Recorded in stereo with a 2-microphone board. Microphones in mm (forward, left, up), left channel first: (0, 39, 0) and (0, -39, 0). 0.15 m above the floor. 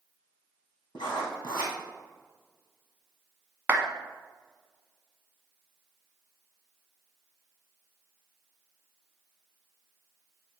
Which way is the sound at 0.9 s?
70° left (ahead or behind).